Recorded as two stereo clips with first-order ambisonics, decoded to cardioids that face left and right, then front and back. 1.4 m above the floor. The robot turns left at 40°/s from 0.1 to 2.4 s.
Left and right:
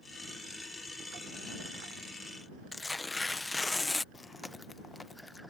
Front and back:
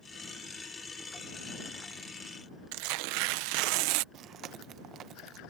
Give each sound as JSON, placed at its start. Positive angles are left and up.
{"t": 2.7, "sound": "tearing paper", "azimuth_deg": 170}
{"t": 4.1, "sound": "chewing", "azimuth_deg": 165}